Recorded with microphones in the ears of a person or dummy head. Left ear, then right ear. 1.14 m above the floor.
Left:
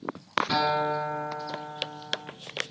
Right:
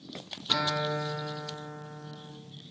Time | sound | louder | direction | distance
0.5 | a guitar | left 1 dB | 20° left (ahead or behind) | 2.5 m